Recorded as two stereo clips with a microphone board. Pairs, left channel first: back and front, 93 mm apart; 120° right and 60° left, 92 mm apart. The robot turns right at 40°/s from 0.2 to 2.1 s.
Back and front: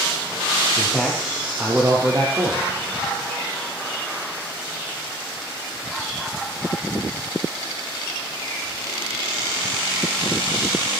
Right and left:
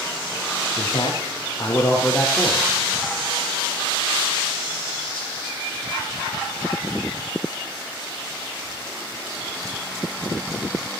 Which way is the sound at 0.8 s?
105° right.